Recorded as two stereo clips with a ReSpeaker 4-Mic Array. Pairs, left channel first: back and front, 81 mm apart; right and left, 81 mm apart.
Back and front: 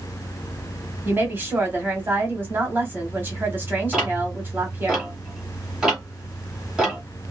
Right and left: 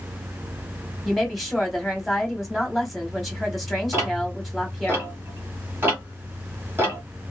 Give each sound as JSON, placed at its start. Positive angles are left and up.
{"t": 1.1, "sound": "a woman speaking", "azimuth_deg": -5, "distance_m": 1.0}
{"t": 3.9, "sound": "ticking", "azimuth_deg": 75, "distance_m": 1.8}